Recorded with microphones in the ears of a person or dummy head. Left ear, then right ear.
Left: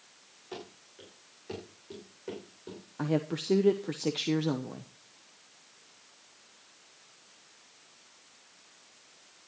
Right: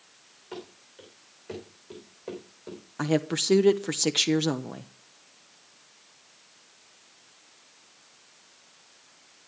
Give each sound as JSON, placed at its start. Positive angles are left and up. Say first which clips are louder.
{"t": 0.5, "sound": "running footsteps", "louder": "right 2 dB", "side_deg": -15, "distance_m": 6.0}
{"t": 3.0, "sound": "a woman speaking", "louder": "right 5 dB", "side_deg": -35, "distance_m": 0.6}